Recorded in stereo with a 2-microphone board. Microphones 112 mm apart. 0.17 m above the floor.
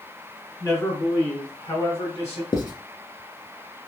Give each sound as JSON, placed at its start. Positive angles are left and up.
{"t": 0.6, "sound": "a man speaking", "side_deg": 20, "distance_m": 1.7}
{"t": 2.5, "sound": "writing", "side_deg": 40, "distance_m": 0.7}